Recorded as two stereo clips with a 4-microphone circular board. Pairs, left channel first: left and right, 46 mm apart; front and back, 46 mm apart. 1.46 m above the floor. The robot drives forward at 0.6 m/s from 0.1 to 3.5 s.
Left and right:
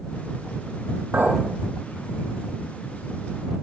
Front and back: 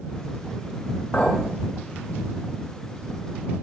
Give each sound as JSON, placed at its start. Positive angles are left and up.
{"t": 1.1, "sound": "a clink", "azimuth_deg": -55, "distance_m": 6.5}